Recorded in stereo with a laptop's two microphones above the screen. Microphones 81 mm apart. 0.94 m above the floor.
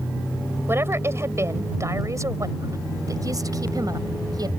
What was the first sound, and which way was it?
A woman speaking, 30° right (ahead or behind).